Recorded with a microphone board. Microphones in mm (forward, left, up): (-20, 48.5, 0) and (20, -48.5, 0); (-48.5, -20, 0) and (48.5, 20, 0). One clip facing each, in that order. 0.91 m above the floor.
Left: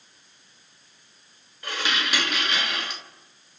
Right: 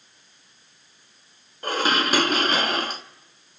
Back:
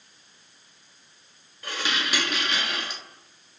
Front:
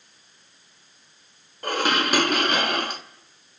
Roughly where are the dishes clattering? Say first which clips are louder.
Right 6 dB, front 7 dB; ahead.